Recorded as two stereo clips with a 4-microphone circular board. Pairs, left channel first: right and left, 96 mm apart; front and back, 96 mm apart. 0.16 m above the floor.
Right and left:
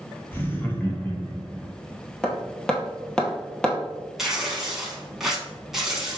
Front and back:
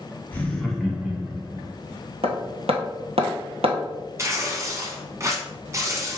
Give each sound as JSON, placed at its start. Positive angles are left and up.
{"t": 0.3, "sound": "laughter", "azimuth_deg": -50, "distance_m": 1.2}
{"t": 2.2, "sound": "hammering", "azimuth_deg": -170, "distance_m": 1.1}
{"t": 4.2, "sound": "tearing paper", "azimuth_deg": 170, "distance_m": 1.0}